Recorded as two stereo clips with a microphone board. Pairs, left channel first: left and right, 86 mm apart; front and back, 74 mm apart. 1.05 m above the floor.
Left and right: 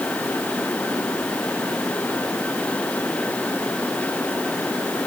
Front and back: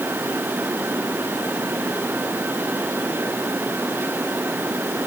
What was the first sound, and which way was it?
Only background noise.